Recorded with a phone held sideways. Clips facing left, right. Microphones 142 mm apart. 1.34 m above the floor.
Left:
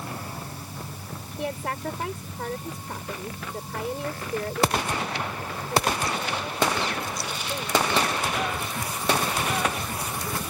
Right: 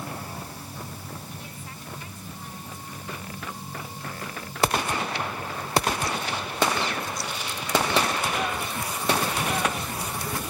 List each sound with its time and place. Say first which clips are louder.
1.4 s a woman speaking: left 12 dB; 90° left